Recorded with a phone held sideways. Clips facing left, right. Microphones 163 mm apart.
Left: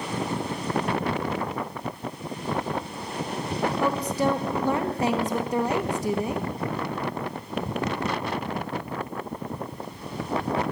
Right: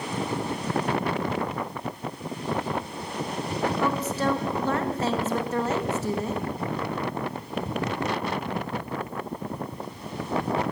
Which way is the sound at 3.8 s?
15° left (ahead or behind).